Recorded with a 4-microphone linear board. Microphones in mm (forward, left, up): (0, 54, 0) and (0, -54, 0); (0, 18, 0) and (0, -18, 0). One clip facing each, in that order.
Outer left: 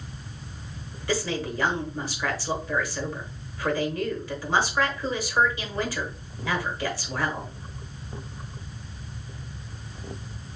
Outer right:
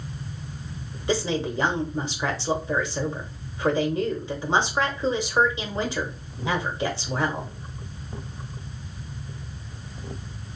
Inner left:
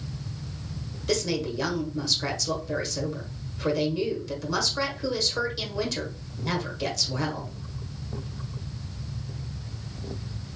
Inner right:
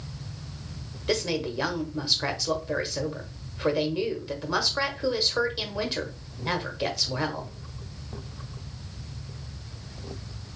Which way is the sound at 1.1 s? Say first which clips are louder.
Outer right 3 dB, even; 25° right (ahead or behind).